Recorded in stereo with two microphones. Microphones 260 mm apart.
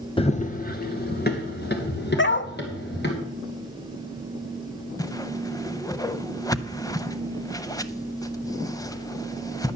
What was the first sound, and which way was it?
Running footsteps, 20° left (ahead or behind).